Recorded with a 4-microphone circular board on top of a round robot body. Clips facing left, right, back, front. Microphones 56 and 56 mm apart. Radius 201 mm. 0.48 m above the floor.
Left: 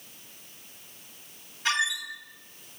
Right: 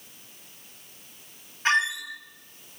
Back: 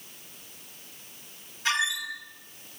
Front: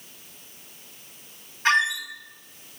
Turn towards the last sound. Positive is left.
turn(degrees=-40)